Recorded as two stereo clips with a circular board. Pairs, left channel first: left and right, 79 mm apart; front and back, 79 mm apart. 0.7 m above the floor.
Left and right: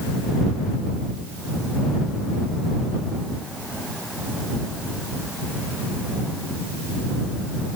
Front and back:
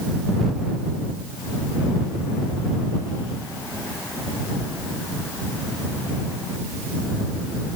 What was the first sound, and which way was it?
Only background noise.